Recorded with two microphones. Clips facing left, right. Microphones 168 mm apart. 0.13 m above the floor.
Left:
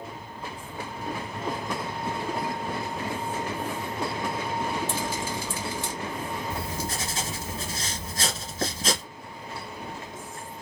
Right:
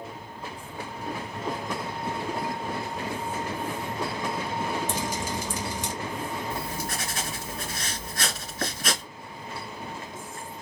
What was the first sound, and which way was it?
Dripping, 20° right (ahead or behind).